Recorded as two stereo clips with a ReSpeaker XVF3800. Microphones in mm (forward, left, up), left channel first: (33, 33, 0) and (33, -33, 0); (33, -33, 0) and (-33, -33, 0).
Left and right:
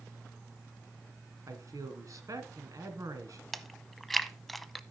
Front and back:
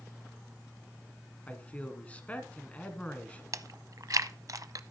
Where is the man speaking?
65° right, 2.5 m.